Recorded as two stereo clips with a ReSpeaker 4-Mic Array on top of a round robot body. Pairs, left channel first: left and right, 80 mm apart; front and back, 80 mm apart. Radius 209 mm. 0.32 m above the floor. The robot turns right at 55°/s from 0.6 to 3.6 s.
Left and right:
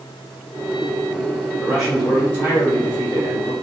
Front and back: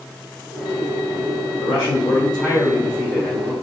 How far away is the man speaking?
About 2.0 m.